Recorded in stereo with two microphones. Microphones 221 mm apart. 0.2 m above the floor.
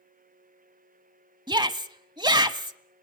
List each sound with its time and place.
1.5 s a shout: 20° right (ahead or behind), 1.0 m